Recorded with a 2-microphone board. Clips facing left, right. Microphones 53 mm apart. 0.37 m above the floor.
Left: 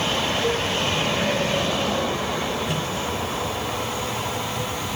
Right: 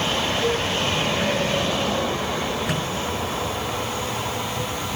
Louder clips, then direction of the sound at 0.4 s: Right 1 dB; 15° right (ahead or behind).